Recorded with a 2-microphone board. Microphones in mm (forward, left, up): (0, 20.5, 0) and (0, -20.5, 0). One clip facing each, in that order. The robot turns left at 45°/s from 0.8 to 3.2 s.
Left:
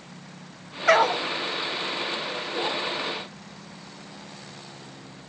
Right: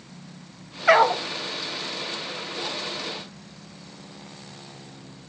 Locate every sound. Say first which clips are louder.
0.9 s a dog barking: right 2 dB; 5° right (ahead or behind), 0.5 m; by 1.2 s 20° right (ahead or behind), 0.5 m